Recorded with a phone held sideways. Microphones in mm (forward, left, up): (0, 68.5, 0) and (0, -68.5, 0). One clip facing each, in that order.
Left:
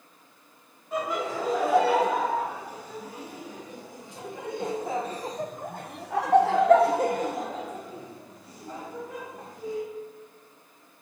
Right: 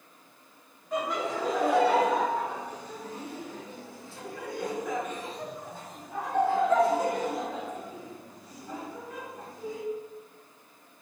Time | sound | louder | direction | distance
0.9 | laughter | left 1 dB | 5° left (ahead or behind) | 3 m